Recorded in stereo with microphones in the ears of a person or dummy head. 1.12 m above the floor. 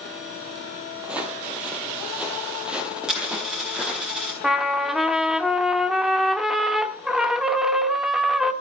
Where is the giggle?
I don't hear a giggle.